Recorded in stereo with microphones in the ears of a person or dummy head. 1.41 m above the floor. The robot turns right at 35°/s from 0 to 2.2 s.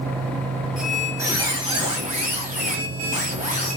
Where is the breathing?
No breathing in this recording.